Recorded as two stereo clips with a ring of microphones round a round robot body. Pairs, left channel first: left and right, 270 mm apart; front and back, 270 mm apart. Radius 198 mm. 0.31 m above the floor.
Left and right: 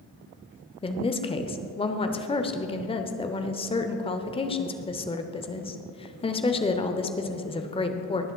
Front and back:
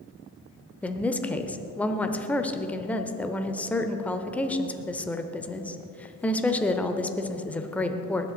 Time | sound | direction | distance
0.8 | a woman speaking | 75° left | 0.8 m